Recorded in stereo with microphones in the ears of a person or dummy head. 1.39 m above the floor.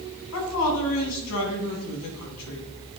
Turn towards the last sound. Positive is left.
turn(degrees=85)